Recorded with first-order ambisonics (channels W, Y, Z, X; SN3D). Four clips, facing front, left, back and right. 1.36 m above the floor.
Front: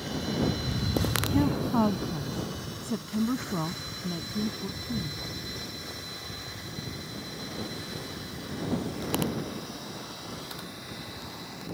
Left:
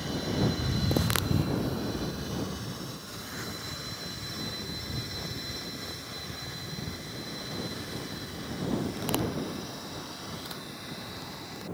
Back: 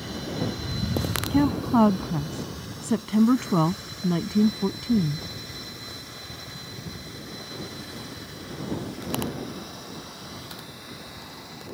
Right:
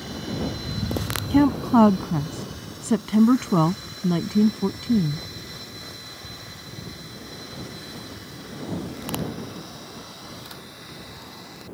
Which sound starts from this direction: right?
A woman speaking, at 1.3 s.